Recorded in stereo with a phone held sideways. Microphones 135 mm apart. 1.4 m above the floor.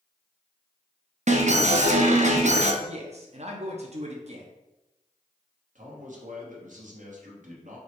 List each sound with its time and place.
1.3 s an alarm: 60° right (ahead or behind), 0.6 m
2.8 s a man speaking: 55° right (ahead or behind), 0.7 m
5.8 s a man speaking: 70° right (ahead or behind), 1.1 m